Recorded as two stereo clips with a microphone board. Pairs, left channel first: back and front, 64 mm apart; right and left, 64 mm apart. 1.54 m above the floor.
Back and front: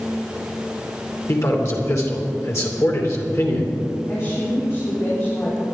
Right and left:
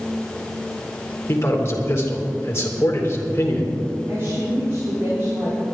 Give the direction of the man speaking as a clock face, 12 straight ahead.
5 o'clock.